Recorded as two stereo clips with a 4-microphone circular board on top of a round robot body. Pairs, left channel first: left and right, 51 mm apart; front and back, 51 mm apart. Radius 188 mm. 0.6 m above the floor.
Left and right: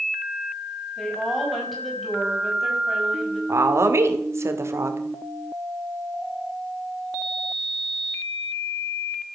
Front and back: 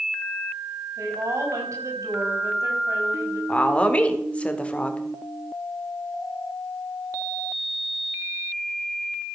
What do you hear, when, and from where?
1.0 s a woman speaking: straight behind, 5.5 m
3.5 s a woman speaking: 65° right, 2 m